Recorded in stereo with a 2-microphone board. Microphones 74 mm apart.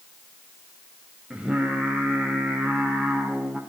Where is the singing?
15° right (ahead or behind), 2.5 m.